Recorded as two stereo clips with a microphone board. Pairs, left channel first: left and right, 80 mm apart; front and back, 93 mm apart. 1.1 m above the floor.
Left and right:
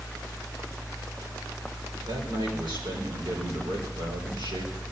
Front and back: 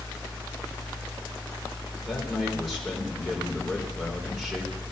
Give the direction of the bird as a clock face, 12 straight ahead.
I don't hear a bird.